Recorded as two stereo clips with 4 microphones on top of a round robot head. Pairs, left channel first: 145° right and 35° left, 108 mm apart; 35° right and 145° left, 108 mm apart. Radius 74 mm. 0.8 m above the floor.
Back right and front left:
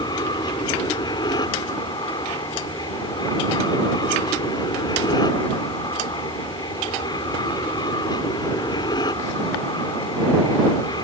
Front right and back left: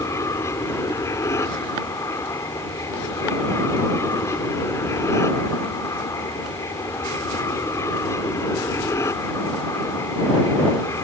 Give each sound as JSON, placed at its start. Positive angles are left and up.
{"t": 0.0, "sound": "an aircraft", "azimuth_deg": -95}